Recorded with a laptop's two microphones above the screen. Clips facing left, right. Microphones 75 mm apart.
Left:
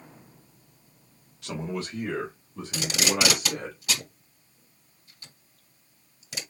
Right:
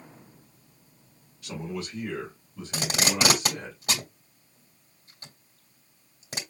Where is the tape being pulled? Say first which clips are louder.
Even; 40° right (ahead or behind), 1.4 m.